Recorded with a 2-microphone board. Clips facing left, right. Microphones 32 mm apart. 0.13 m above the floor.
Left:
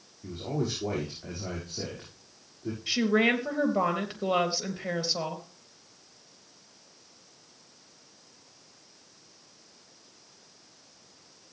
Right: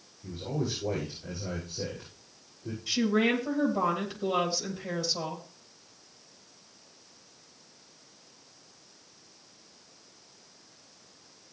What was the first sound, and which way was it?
A man speaking, 70° left (ahead or behind).